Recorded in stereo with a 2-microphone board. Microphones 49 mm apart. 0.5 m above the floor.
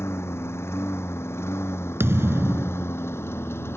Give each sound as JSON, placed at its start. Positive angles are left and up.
{"t": 0.0, "sound": "a lawn mower", "side_deg": 65}
{"t": 2.0, "sound": "a thud", "side_deg": -65}